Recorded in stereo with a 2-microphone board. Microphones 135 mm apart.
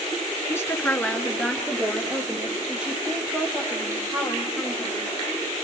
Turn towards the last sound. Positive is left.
turn(degrees=-15)  # may be behind; listen again after turning